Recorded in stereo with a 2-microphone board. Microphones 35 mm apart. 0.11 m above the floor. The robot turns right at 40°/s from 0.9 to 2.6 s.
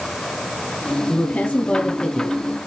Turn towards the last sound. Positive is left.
turn(degrees=165)